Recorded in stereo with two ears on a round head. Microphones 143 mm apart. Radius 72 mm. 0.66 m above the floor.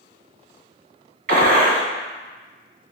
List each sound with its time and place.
1.3 s a gunshot: 60° right (ahead or behind), 0.9 m